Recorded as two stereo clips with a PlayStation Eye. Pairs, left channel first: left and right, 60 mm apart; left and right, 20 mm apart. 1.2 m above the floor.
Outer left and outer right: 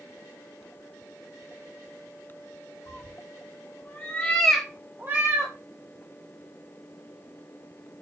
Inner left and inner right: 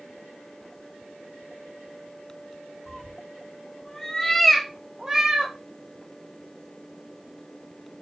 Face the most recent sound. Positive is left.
turn(degrees=-50)  # may be behind; listen again after turning